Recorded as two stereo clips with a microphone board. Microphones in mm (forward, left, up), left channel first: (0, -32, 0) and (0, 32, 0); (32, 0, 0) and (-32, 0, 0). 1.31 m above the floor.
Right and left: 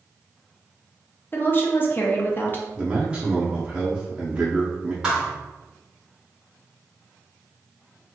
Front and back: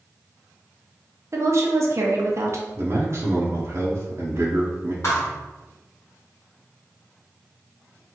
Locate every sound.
1.3 s a woman speaking: 145° right, 0.8 m
2.8 s a man speaking: 160° left, 0.7 m
5.0 s a thud: 15° left, 1.4 m